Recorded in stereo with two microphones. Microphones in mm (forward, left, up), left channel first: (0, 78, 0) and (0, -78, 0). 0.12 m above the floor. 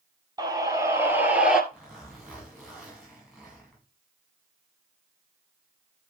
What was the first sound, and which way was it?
A scream, 25° right (ahead or behind).